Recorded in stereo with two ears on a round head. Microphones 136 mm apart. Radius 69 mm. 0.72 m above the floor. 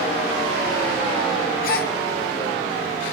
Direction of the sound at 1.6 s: 60° left (ahead or behind).